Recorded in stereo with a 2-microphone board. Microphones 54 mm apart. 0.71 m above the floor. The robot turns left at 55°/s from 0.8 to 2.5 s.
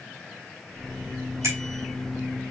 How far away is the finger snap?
About 3 m.